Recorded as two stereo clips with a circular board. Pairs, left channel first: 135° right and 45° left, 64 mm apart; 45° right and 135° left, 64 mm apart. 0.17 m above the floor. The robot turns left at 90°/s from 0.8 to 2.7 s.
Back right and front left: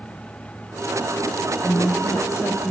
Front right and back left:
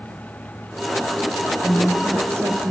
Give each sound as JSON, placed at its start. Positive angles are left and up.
{"t": 1.6, "sound": "a woman speaking", "azimuth_deg": -115, "distance_m": 5.0}